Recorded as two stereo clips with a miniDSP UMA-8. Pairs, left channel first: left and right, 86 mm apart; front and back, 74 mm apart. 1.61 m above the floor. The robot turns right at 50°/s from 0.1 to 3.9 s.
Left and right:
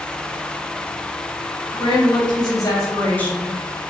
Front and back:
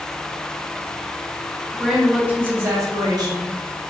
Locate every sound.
1.7 s a woman speaking: 85° left, 0.9 m; by 3.6 s straight behind, 0.9 m